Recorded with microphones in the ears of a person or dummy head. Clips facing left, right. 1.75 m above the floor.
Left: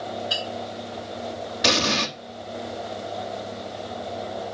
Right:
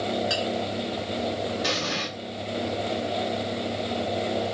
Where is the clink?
60° right (ahead or behind), 3 m.